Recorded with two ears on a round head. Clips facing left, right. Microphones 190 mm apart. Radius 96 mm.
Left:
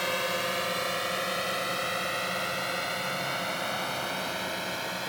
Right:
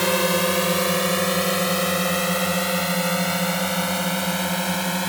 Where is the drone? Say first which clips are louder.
Right 11 dB; 70° right (ahead or behind).